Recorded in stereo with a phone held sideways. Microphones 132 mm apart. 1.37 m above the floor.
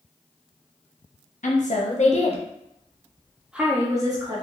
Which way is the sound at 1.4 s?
75° left (ahead or behind).